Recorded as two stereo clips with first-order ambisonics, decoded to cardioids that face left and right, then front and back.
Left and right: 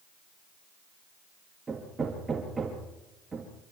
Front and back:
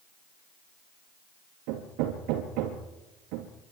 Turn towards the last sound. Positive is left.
turn(degrees=-165)